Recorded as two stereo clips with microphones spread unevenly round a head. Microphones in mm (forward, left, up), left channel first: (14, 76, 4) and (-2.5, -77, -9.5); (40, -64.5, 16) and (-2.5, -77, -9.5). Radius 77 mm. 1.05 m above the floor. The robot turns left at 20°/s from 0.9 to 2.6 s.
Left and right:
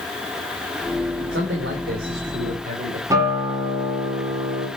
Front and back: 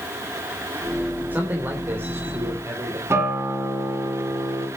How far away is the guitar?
About 4 m.